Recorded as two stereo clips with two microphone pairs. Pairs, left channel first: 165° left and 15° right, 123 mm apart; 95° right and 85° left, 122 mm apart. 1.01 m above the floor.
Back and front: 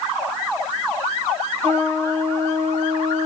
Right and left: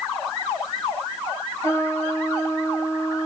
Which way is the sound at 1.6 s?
30° right.